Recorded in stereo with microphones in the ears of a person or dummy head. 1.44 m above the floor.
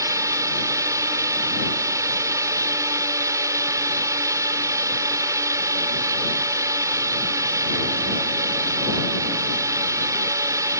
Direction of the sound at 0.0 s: 20° right (ahead or behind).